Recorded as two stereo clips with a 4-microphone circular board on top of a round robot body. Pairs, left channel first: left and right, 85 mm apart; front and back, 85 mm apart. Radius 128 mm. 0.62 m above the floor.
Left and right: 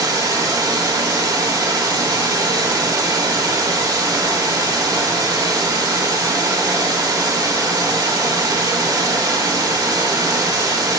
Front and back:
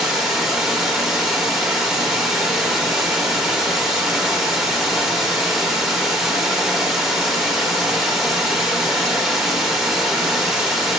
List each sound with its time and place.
0.0 s running water: 100° right, 1.0 m